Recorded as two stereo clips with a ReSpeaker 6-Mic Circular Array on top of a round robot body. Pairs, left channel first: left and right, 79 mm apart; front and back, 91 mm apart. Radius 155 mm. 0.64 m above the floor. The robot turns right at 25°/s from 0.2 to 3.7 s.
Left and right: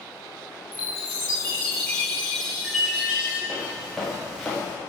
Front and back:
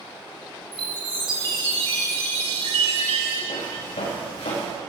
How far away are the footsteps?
About 7.5 m.